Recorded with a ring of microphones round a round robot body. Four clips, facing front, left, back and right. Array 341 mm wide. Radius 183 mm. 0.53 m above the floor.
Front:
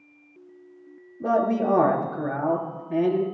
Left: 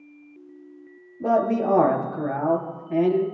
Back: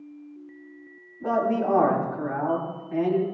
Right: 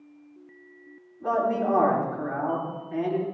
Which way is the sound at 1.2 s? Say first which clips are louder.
Left 3 dB, front 2 dB; 50° left.